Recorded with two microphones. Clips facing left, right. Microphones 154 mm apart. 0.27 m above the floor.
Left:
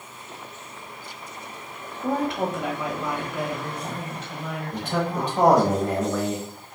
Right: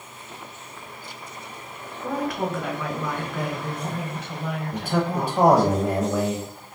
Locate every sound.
2.0 s a woman speaking: 30° left (ahead or behind), 1.2 m; by 5.7 s 30° right (ahead or behind), 1.6 m
4.7 s a man speaking: 10° right (ahead or behind), 0.9 m